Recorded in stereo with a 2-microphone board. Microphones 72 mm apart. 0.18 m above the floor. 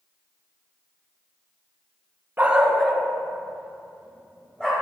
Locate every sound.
2.4 s a dog barking: 25° right (ahead or behind), 0.7 m; by 4.8 s 10° left (ahead or behind), 3.5 m